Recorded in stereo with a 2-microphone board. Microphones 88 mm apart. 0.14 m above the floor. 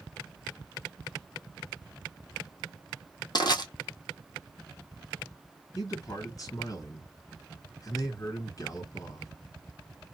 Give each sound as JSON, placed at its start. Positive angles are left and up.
{"t": 3.4, "sound": "crushing", "side_deg": 50, "distance_m": 1.0}
{"t": 5.8, "sound": "a man speaking", "side_deg": 40, "distance_m": 2.0}